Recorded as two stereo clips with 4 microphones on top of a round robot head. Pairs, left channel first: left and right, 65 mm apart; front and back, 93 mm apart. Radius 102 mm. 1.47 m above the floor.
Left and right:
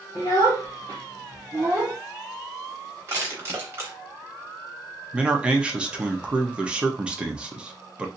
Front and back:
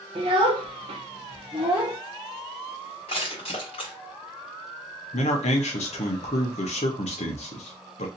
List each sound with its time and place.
0.1 s a child speaking: 150° left, 1.2 m; by 2.0 s 95° right, 0.5 m
3.1 s crushing: 40° right, 1.5 m
5.1 s a man speaking: 15° right, 0.9 m